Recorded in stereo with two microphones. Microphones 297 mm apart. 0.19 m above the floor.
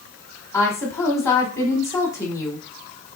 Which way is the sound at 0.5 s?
10° left (ahead or behind).